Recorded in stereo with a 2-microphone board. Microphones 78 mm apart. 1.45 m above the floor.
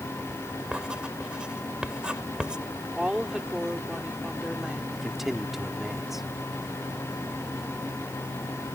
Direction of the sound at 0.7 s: 10° right (ahead or behind).